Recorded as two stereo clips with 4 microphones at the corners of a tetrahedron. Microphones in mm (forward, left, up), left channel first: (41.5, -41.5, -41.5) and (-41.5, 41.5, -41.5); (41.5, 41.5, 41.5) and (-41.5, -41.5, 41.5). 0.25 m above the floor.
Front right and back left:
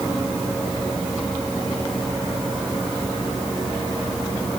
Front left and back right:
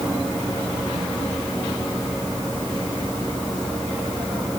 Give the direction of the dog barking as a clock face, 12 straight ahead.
No dog barking in this recording.